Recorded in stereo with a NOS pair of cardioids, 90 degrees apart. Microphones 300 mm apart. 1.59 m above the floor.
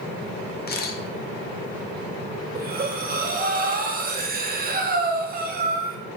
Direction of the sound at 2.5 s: 30° right.